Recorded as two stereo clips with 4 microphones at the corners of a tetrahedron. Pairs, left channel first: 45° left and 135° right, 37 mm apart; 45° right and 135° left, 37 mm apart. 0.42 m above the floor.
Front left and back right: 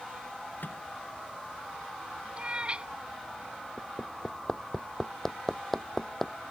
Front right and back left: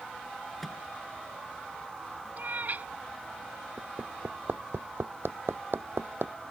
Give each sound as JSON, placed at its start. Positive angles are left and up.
{"t": 0.6, "sound": "a microwave", "azimuth_deg": 40}
{"t": 2.4, "sound": "a cat meowing", "azimuth_deg": 170}
{"t": 3.8, "sound": "hammering", "azimuth_deg": 125}